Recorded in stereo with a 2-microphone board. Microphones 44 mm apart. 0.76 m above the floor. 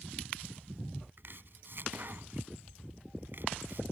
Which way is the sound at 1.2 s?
55° right (ahead or behind).